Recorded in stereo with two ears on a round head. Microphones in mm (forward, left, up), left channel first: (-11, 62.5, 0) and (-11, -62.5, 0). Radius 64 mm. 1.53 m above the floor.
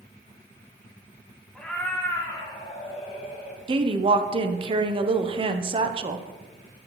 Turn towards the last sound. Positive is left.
turn(degrees=-40)  # may be behind; listen again after turning